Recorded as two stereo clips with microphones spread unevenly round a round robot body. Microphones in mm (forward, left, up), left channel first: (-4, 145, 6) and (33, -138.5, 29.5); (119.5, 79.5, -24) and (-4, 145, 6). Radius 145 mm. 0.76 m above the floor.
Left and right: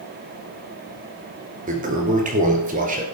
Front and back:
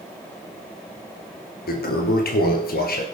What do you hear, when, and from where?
1.7 s a toilet flushing: 20° right, 2 m